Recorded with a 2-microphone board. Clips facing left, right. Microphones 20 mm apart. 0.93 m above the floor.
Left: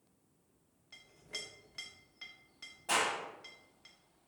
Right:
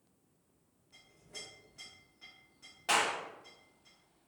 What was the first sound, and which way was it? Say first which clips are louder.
A clink: left 4 dB; 75° left (ahead or behind).